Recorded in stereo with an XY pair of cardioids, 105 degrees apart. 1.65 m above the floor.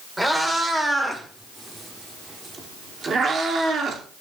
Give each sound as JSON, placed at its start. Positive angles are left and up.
{"t": 0.2, "sound": "a cat meowing", "azimuth_deg": -15, "distance_m": 3.0}